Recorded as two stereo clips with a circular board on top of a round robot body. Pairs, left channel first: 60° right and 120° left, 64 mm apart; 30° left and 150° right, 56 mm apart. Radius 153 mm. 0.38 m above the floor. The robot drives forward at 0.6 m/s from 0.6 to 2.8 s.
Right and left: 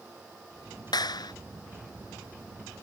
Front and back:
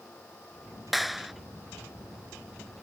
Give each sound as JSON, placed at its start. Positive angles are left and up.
{"t": 0.9, "sound": "a clap", "azimuth_deg": -60}